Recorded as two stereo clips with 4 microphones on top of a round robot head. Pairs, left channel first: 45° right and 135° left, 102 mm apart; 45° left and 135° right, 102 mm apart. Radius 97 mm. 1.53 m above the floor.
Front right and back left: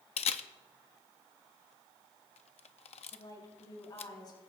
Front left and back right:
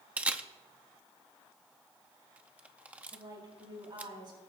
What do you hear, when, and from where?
0.2 s a camera shutter: 55° right, 0.6 m
3.1 s a woman speaking: 90° right, 4.5 m